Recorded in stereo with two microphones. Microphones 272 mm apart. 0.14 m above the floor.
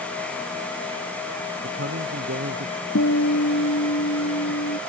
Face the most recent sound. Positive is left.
turn(degrees=70)  # may be behind; listen again after turning